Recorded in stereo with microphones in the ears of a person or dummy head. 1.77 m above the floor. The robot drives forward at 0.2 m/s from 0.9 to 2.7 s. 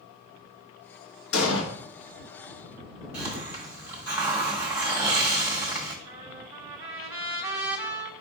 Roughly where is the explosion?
Left.